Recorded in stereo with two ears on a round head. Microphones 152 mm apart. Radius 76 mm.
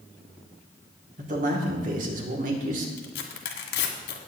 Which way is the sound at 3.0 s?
70° left (ahead or behind).